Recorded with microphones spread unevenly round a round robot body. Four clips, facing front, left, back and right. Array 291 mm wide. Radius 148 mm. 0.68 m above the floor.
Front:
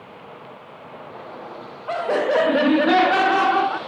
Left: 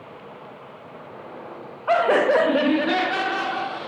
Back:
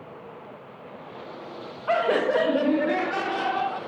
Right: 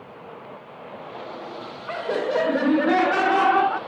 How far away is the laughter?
About 0.6 m.